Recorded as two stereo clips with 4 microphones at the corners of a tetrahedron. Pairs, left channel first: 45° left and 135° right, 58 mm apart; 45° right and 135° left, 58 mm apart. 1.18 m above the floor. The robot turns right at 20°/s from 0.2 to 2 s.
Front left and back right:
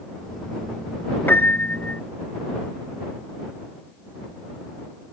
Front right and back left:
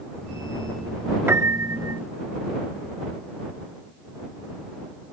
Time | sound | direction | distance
1.3 | a piano | 90° left | ?